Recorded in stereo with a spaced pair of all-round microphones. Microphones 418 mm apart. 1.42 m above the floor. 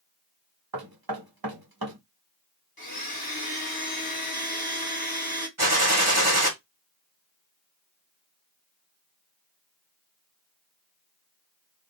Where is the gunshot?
40° right (ahead or behind), 2.0 m.